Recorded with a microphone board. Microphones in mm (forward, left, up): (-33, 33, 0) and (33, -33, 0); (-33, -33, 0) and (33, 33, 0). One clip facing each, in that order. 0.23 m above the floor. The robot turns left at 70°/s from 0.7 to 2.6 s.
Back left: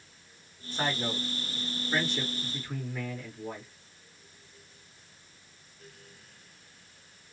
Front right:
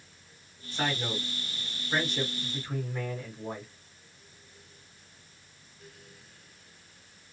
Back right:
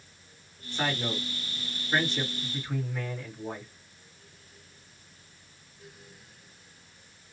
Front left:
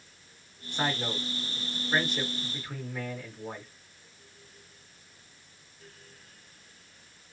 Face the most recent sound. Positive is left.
turn(degrees=-35)